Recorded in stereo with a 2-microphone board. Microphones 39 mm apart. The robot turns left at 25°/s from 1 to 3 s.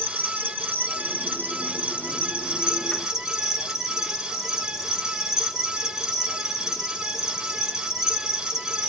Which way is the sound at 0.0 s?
115° right.